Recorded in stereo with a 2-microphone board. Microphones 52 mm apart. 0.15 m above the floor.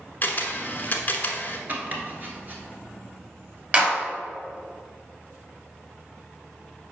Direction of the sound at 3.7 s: 30° right (ahead or behind).